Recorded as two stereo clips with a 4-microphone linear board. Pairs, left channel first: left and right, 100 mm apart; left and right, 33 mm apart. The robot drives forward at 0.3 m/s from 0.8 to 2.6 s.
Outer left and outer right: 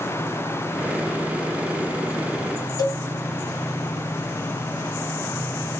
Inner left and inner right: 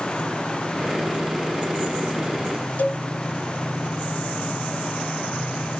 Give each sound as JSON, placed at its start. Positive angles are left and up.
{"t": 2.8, "sound": "a cowbell", "side_deg": 35, "distance_m": 1.3}